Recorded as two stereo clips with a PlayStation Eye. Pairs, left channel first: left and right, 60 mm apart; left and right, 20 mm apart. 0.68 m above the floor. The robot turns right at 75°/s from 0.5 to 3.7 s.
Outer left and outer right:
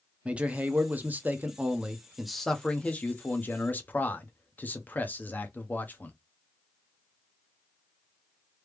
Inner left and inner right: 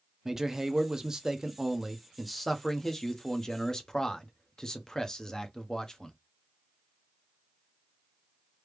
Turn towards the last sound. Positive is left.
turn(degrees=105)